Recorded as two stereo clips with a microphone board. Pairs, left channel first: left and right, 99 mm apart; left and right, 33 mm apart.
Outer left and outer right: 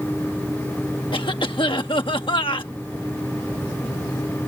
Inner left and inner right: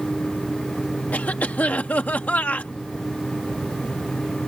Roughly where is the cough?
Left.